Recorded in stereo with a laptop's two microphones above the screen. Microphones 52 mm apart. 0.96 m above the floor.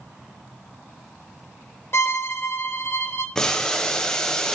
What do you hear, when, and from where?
1.9 s a violin: 50° left (ahead or behind), 0.8 m
3.4 s boiling: 15° left (ahead or behind), 0.8 m